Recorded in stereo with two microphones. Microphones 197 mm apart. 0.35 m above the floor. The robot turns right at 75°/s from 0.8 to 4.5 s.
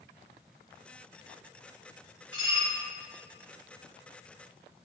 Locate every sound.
2.3 s dishes clattering: 30° right, 1.8 m; by 2.7 s straight ahead, 1.8 m